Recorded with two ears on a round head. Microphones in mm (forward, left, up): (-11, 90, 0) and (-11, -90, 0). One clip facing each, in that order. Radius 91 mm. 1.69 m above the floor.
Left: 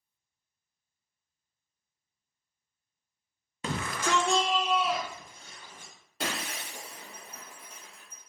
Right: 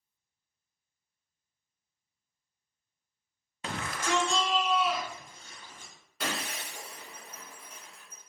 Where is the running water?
I don't hear running water.